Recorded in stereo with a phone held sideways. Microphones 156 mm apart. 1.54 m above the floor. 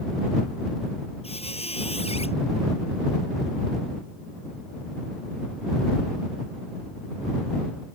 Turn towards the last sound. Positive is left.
turn(degrees=40)  # may be behind; listen again after turning